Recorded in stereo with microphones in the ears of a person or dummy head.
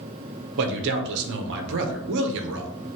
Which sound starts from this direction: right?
A man speaking, at 0.6 s.